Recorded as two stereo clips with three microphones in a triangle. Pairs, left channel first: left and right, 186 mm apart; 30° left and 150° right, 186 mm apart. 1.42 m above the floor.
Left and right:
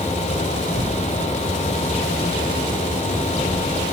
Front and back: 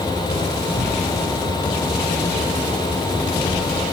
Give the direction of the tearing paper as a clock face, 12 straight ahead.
3 o'clock.